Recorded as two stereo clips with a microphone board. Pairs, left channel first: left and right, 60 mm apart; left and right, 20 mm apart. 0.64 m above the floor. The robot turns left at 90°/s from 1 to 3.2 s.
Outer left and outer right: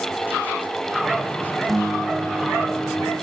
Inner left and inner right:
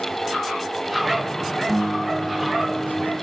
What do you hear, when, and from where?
1.7 s a guitar: 10° left, 1.2 m; by 3.1 s 120° right, 1.2 m